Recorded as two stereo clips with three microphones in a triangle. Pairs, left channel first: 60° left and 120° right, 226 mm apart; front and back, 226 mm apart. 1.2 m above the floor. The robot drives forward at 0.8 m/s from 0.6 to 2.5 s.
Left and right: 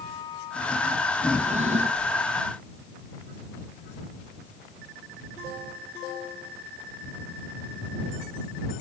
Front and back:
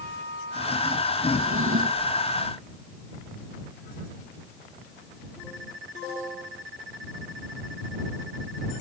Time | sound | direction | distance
1.3 | a drawer | straight behind | ?